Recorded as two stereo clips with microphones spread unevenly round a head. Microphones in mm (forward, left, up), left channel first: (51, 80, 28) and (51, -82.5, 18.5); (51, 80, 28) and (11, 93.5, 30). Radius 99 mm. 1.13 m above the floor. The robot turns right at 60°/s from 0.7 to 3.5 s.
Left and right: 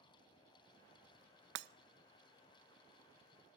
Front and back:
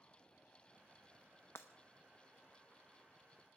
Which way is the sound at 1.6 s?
90° right.